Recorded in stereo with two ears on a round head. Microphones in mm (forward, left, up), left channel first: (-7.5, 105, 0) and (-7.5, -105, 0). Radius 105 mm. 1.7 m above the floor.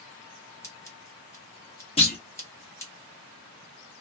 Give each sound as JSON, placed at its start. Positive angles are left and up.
{"t": 0.6, "sound": "scissors", "side_deg": 10, "distance_m": 0.8}
{"t": 2.0, "sound": "a clunk", "side_deg": 25, "distance_m": 0.8}